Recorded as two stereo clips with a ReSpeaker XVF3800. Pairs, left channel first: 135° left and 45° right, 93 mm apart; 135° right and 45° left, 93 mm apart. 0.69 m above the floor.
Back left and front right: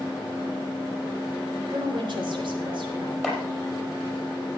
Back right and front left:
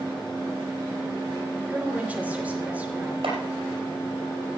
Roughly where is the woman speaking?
Ahead right.